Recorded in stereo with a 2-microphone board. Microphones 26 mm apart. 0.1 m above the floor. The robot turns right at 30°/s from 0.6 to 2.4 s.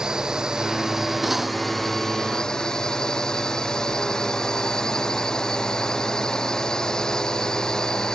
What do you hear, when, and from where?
0.0 s a drone: 30° right; by 8.2 s 25° left
1.2 s cutlery clinking: 5° right (ahead or behind); by 1.5 s 15° right (ahead or behind)